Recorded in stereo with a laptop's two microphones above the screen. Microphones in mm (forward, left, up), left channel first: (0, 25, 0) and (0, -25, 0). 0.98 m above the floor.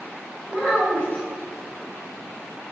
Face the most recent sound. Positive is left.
turn(degrees=20)  # may be behind; listen again after turning